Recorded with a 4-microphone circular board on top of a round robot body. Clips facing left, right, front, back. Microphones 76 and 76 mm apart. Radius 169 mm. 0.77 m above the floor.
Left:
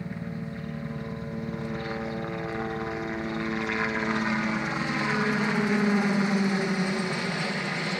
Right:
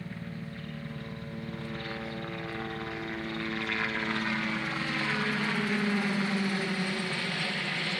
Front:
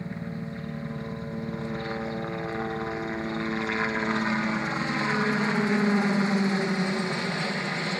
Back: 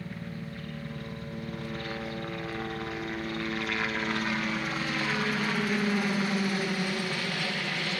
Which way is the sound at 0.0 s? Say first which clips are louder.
Left 5 dB, front 4 dB; 35° left.